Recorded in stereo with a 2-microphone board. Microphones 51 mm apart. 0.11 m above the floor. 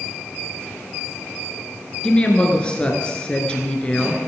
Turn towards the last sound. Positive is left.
turn(degrees=20)  # may be behind; listen again after turning